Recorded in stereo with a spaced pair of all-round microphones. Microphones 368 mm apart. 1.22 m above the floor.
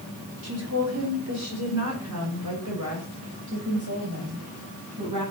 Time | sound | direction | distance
0.4 | a woman speaking | 40° right (ahead or behind) | 4 m